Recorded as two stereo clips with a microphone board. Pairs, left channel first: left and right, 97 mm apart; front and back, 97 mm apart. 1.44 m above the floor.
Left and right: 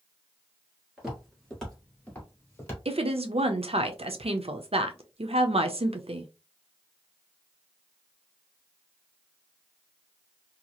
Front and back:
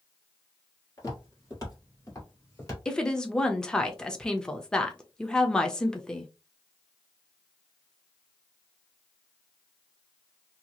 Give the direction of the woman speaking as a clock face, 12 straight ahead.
3 o'clock.